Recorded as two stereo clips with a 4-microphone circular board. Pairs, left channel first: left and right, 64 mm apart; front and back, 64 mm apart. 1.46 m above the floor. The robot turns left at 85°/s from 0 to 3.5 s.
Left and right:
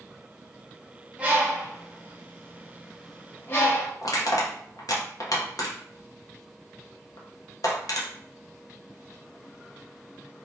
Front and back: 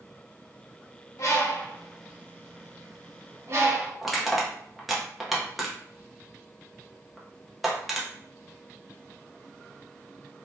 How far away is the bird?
About 0.7 m.